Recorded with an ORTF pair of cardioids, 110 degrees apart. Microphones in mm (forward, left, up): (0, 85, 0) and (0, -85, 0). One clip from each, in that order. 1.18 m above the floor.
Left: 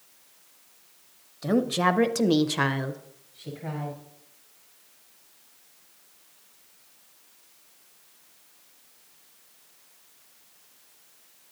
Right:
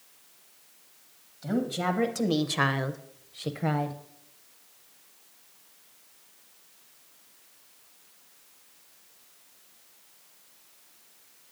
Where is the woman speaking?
45° left, 0.9 m; by 4.0 s 75° right, 0.7 m.